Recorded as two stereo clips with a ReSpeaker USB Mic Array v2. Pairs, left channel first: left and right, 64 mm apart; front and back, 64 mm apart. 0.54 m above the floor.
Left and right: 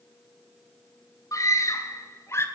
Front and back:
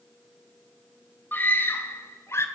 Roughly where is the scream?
Ahead left.